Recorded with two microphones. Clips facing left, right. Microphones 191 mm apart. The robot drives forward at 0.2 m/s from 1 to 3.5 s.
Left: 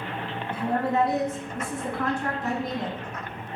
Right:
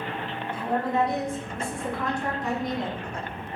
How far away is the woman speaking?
About 1.4 m.